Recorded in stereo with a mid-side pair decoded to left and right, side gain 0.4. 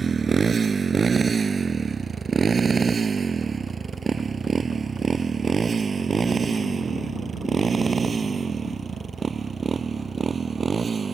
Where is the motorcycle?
40° right.